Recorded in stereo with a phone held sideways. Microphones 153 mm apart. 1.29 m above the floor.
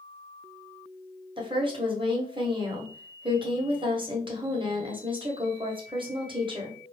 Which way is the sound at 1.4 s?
35° right (ahead or behind).